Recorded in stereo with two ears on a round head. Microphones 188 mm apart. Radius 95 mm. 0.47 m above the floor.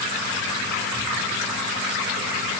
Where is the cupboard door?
I don't hear a cupboard door.